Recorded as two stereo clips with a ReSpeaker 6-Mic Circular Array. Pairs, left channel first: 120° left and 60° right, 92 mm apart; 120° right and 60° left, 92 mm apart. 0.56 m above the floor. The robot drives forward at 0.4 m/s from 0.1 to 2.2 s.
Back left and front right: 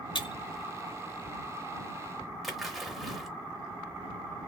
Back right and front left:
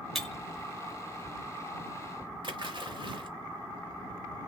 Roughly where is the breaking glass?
Behind left.